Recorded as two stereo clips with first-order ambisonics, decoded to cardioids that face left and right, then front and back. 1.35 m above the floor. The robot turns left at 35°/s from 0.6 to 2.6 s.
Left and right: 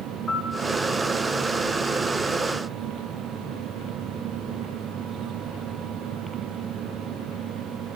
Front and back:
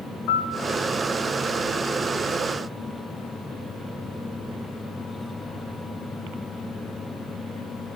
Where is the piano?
20° left, 0.6 m.